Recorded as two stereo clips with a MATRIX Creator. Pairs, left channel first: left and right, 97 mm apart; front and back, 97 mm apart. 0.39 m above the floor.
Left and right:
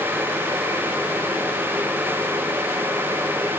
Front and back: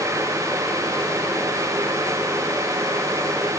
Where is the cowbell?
I don't hear a cowbell.